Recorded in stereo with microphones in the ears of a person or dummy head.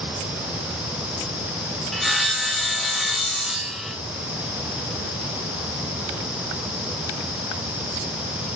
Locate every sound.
1.9 s sawing: centre (ahead or behind), 0.8 m